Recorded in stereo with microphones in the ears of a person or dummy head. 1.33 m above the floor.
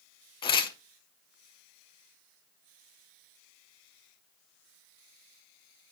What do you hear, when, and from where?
0.4 s tearing paper: 25° left (ahead or behind), 0.8 m